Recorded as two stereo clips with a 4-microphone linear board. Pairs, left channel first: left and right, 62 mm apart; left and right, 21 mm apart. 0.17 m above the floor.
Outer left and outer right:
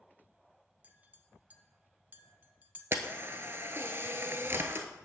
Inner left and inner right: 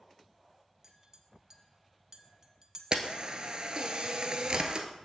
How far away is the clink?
About 0.8 m.